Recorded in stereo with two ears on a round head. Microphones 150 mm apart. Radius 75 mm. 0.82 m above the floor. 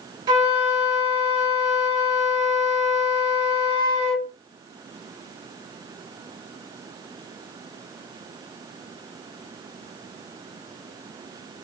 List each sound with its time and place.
0.3 s a flute: 30° right (ahead or behind), 1.4 m